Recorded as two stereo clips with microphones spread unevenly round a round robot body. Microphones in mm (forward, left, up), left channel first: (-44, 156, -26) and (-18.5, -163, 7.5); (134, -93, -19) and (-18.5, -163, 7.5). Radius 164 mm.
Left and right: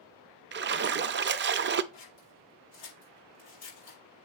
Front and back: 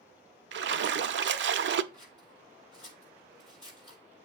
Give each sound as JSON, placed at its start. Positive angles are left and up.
{"t": 0.5, "sound": "a splash", "azimuth_deg": -145, "distance_m": 0.5}
{"t": 1.9, "sound": "scissors", "azimuth_deg": 95, "distance_m": 6.0}